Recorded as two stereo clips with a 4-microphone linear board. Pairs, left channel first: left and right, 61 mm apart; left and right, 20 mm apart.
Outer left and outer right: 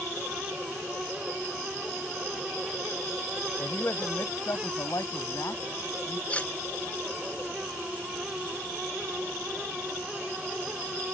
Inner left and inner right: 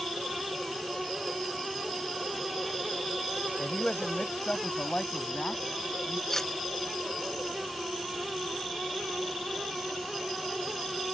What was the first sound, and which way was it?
A man speaking, 50° left (ahead or behind).